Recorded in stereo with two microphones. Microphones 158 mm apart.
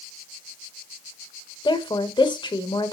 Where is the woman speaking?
30° left (ahead or behind), 1.3 m.